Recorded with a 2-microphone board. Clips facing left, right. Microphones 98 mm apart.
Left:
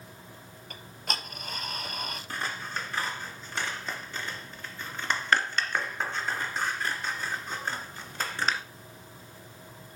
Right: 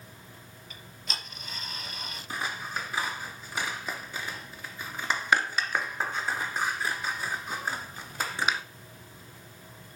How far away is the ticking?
About 2.0 m.